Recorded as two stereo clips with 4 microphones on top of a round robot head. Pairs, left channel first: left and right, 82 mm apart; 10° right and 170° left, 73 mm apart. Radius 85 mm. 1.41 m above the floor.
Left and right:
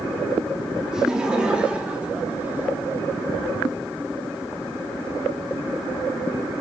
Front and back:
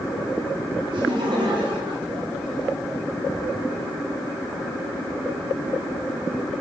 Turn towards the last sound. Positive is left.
turn(degrees=-150)